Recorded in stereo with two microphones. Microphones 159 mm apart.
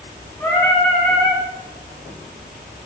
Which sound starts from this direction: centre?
Singing, at 0.4 s.